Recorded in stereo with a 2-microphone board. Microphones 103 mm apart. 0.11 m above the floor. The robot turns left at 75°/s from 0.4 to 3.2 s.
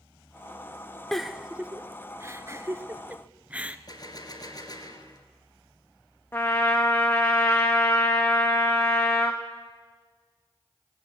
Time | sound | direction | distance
1.1 | a giggle | 5° left (ahead or behind) | 0.7 m
3.9 | a gunshot | 40° left (ahead or behind) | 1.7 m
6.3 | a trumpet | 20° left (ahead or behind) | 1.7 m